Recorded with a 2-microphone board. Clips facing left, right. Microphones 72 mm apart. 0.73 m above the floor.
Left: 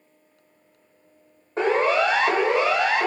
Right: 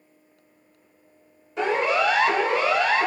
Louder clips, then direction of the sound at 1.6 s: Left 2 dB; 45° left (ahead or behind).